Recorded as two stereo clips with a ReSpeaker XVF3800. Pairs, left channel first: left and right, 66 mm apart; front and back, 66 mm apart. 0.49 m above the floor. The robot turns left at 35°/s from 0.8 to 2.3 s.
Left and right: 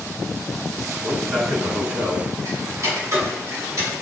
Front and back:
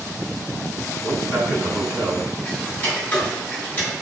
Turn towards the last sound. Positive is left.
turn(degrees=-60)